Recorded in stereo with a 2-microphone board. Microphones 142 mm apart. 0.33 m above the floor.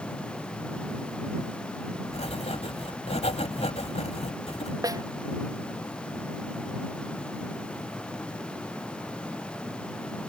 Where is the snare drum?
25° right (ahead or behind).